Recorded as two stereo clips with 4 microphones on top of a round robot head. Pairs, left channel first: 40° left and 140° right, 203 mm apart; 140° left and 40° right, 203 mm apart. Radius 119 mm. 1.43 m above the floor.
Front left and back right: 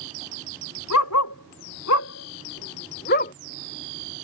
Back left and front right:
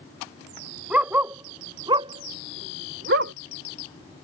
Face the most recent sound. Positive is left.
turn(degrees=-10)